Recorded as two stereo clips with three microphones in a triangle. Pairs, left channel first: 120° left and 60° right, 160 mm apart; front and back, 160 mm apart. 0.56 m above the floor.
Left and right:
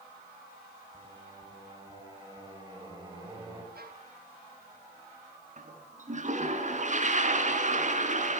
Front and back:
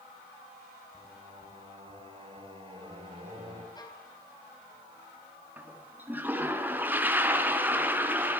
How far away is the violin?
About 4.5 m.